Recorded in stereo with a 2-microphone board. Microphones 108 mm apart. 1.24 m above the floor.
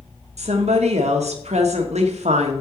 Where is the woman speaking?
80° right, 1.1 m.